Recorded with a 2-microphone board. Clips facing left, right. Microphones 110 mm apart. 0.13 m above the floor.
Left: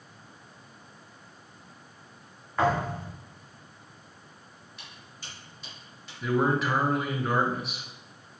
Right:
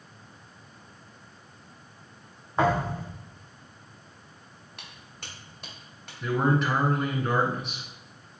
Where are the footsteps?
60° right (ahead or behind), 2.5 m; by 6.1 s 55° right (ahead or behind), 4.5 m.